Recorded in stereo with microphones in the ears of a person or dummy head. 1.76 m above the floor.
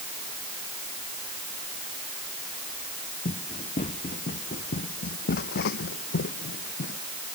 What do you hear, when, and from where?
3.2 s running footsteps: 45° left (ahead or behind); by 7.0 s 50° left (ahead or behind)